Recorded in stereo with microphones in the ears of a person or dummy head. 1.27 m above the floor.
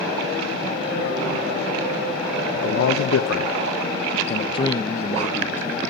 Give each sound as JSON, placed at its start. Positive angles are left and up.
{"t": 2.5, "sound": "a man speaking", "side_deg": 60, "distance_m": 1.0}